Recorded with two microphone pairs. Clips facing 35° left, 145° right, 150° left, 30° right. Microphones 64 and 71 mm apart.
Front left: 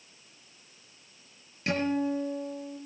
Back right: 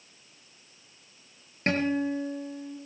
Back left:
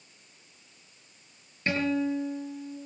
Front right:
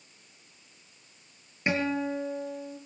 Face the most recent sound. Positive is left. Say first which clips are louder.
# back right 1 dB, back left 1 dB
turn(degrees=-105)